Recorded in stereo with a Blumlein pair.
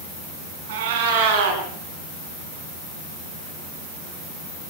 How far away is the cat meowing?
About 5.5 m.